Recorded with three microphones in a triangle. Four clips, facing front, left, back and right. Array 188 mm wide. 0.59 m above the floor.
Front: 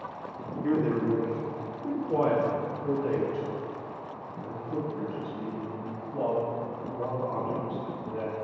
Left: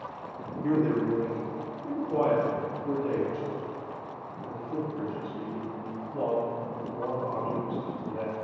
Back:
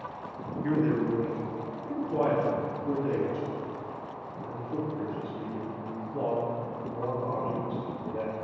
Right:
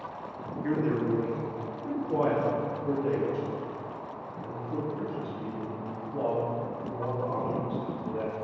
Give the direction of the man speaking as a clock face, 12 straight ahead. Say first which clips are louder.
Left 2 dB, front 1 dB; 10 o'clock.